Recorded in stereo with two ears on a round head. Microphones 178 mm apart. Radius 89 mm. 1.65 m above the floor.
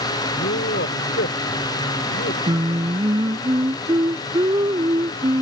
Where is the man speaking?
50° left (ahead or behind).